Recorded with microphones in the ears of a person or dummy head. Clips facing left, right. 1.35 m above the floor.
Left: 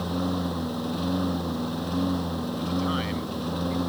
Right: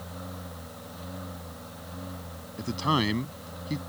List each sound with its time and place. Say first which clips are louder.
0.0 s a lawn mower: left 14 dB; 80° left
2.6 s a man speaking: right 2 dB; 85° right